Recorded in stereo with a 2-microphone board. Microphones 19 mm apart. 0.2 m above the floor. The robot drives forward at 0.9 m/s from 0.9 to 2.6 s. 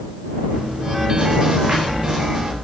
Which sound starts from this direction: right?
Chewing, at 0.5 s.